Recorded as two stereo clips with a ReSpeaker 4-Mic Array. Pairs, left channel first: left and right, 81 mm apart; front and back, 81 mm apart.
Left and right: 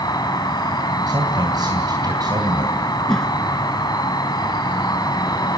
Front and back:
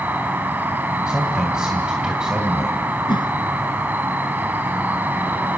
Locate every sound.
0.0 s an insect: 115° left, 2.5 m
1.1 s a man speaking: 100° right, 3 m
3.1 s a whoosh: 10° left, 1.5 m